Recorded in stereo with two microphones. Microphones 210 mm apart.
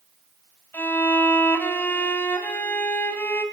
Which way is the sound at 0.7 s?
10° left (ahead or behind).